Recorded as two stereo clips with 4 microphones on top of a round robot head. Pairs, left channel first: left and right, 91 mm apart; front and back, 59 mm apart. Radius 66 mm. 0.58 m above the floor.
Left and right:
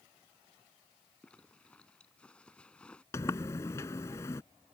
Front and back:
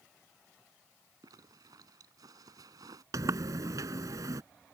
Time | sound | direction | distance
1.2 | a zipper | 170° left | ?
3.1 | a sliding door | 155° left | ?